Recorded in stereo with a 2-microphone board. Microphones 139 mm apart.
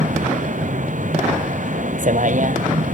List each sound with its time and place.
0.0 s a vehicle: 65° right (ahead or behind)